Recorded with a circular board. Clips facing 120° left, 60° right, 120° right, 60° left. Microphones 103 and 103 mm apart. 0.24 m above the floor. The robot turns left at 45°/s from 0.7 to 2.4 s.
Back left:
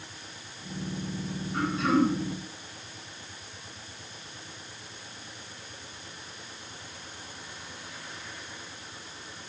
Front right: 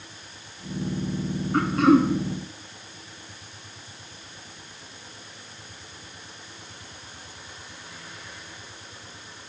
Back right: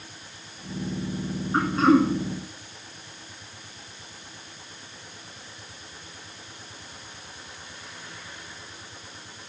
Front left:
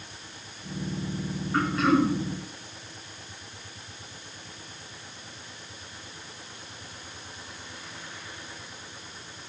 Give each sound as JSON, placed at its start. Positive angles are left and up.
{"t": 1.5, "sound": "throat clearing", "azimuth_deg": -55, "distance_m": 1.2}